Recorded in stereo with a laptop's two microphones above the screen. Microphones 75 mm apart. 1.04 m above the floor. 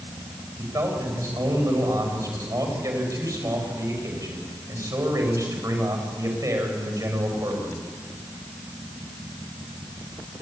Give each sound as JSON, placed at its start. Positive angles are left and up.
{"t": 0.6, "sound": "a man speaking", "side_deg": -50, "distance_m": 5.5}